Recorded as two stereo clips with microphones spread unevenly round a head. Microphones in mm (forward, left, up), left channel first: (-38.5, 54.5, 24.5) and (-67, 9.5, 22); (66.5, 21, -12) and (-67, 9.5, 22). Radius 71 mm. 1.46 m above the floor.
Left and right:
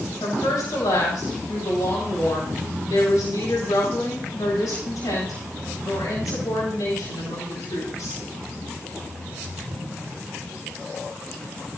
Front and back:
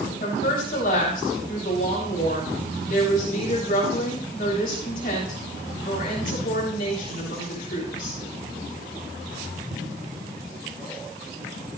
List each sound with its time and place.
0.2 s a woman speaking: 30° left, 7.5 m